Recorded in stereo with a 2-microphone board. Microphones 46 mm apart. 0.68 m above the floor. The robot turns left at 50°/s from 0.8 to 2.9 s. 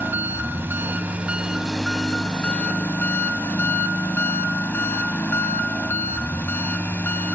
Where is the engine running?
125° right, 1.2 m; by 7.4 s 130° left, 1.2 m.